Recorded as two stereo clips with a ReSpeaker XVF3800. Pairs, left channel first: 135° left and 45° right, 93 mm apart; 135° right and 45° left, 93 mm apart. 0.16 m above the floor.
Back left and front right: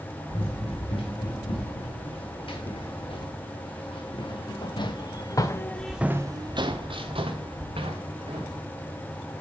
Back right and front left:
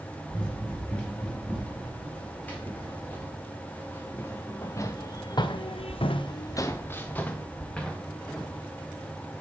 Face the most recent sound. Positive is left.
turn(degrees=-50)